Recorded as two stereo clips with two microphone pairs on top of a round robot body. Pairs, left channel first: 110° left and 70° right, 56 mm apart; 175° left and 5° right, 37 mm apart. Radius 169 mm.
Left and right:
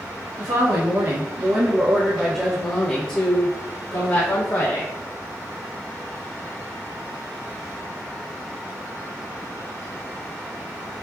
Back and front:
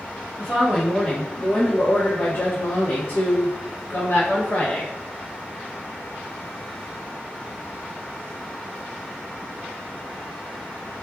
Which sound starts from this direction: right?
A woman speaking, at 0.4 s.